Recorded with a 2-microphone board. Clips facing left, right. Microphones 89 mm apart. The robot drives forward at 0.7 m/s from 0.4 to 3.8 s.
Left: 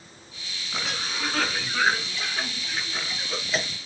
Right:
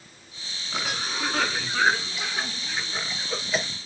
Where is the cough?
5° right (ahead or behind), 2.5 m.